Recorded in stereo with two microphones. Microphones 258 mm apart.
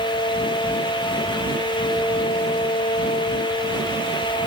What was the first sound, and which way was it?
Only background noise.